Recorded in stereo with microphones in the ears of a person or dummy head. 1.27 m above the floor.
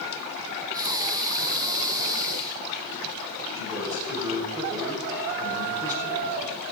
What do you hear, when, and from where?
0.7 s breathing: 15° right (ahead or behind), 1.3 m
3.5 s a man speaking: 15° right (ahead or behind), 7 m